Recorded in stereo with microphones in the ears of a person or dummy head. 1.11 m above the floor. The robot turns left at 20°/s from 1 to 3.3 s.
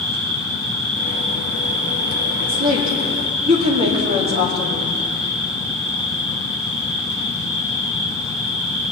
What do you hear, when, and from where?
0.0 s an insect: 35° right, 2.5 m; by 8.9 s 80° right, 2.5 m
2.4 s a woman speaking: 50° right (ahead or behind), 2 m; by 4.9 s 30° right (ahead or behind), 2 m